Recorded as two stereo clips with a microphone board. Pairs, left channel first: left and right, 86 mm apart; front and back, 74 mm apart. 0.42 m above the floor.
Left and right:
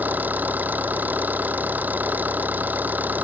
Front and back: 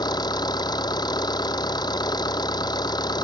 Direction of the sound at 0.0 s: 20° right.